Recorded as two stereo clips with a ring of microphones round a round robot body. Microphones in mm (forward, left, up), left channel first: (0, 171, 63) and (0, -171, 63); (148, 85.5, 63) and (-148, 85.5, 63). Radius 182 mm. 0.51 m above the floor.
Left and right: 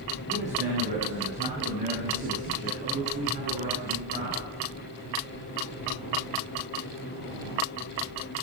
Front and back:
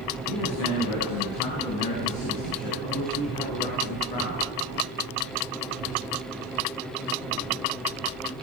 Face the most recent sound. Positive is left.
turn(degrees=-20)